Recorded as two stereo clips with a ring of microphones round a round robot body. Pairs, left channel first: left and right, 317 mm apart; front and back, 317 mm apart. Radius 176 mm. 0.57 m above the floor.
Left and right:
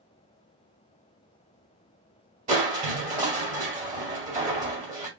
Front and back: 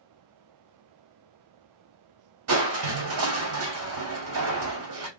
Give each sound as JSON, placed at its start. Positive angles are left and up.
{"t": 2.5, "sound": "crushing", "azimuth_deg": -150, "distance_m": 1.9}